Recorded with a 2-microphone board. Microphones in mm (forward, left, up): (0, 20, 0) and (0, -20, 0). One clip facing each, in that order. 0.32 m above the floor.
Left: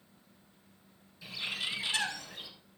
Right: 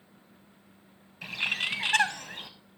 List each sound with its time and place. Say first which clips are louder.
1.2 s a bird: right 7 dB; 60° right (ahead or behind), 1.4 m